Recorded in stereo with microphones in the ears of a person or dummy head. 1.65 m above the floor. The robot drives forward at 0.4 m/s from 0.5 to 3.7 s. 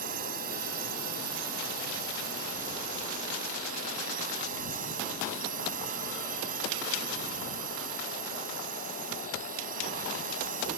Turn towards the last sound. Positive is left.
turn(degrees=-45)  # may be behind; listen again after turning